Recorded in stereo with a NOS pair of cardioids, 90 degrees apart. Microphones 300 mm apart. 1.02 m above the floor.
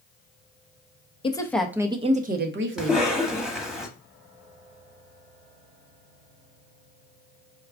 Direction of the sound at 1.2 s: 20° left.